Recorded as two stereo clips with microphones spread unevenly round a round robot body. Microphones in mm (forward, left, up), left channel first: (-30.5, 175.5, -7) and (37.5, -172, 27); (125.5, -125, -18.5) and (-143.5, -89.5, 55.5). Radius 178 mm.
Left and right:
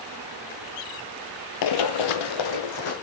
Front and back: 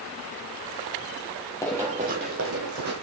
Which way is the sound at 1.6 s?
85° left.